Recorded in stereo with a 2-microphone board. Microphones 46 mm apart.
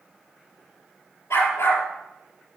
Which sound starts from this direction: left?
A dog barking, at 1.3 s.